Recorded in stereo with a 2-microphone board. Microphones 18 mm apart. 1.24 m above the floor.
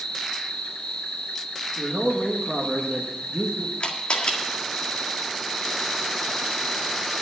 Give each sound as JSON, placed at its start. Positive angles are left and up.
{"t": 0.0, "sound": "an insect", "side_deg": 80, "distance_m": 3.0}
{"t": 1.8, "sound": "a man speaking", "side_deg": 0, "distance_m": 1.6}
{"t": 3.8, "sound": "a camera shutter", "side_deg": 65, "distance_m": 1.7}